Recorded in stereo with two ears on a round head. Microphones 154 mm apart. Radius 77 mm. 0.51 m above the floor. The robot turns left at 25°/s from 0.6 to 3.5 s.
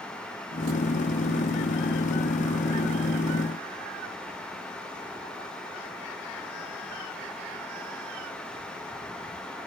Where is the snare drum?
I don't hear a snare drum.